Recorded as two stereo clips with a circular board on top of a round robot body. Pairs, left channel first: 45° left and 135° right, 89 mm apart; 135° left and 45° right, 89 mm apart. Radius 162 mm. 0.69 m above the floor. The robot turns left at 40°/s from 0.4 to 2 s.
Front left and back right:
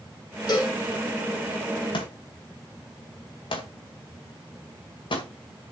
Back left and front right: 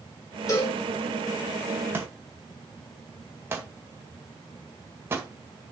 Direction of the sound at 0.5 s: 90° left.